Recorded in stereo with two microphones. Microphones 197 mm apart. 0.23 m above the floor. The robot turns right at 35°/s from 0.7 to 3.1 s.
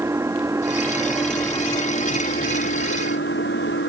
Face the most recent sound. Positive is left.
turn(degrees=70)